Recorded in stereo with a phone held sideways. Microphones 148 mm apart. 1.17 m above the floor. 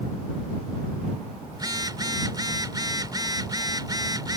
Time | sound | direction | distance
1.5 | a phone buzzing | 30° right (ahead or behind) | ?